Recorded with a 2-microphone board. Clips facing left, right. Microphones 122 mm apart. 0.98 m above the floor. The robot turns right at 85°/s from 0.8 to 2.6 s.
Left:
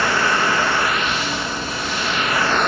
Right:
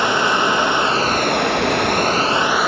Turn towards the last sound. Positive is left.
turn(degrees=-5)